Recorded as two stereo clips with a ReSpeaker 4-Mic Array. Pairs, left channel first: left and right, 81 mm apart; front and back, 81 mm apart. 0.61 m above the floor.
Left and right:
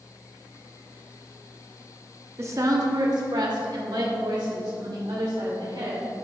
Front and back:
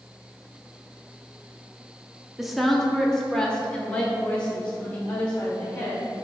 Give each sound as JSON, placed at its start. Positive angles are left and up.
{"t": 2.4, "sound": "a woman speaking", "azimuth_deg": -95, "distance_m": 0.9}